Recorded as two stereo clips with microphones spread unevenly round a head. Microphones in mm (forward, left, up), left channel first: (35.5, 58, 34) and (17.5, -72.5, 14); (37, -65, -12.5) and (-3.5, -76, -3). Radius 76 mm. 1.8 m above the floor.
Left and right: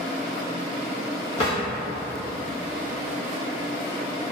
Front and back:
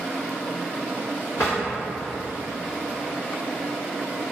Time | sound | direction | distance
1.4 | a drawer | 65° left | 1.7 m